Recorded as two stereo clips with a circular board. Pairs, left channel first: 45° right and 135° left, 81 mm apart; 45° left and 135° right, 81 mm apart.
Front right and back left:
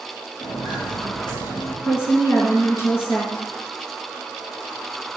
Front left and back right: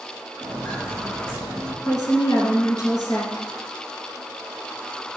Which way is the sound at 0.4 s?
35° right.